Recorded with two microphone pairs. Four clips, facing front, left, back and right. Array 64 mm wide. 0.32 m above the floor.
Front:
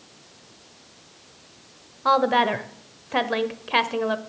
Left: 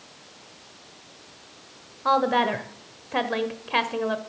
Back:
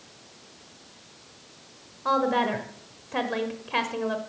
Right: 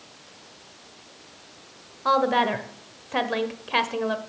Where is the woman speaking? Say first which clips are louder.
Even, front 4 dB; 5° left, 0.9 m.